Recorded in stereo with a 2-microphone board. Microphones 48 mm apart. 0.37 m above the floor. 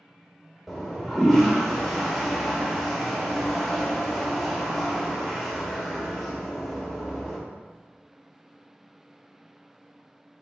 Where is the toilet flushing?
Centre (ahead or behind), 0.8 m.